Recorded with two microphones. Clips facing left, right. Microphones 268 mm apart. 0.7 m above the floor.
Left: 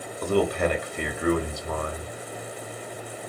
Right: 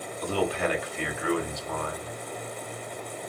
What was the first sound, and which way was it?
A man speaking, 50° left (ahead or behind).